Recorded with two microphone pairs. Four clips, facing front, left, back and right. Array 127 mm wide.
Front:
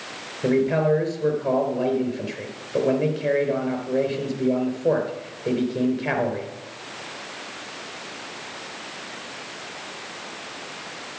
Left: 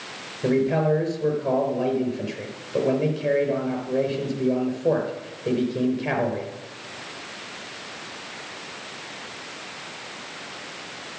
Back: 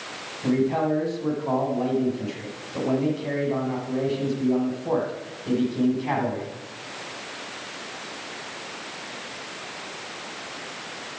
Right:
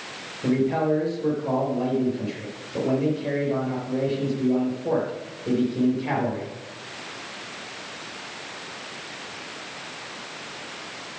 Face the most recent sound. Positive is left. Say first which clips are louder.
# left 1 dB, front 2 dB
turn(degrees=10)